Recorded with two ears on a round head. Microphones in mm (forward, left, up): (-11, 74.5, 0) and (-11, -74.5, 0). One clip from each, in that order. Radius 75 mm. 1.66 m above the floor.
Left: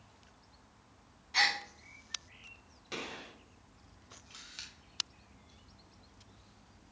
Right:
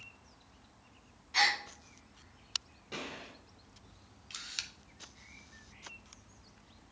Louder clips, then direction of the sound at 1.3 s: Right 1 dB; 5° left (ahead or behind).